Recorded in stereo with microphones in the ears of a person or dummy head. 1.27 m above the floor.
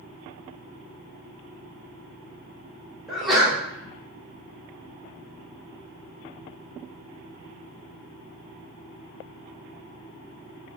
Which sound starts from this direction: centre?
A sneeze, at 3.1 s.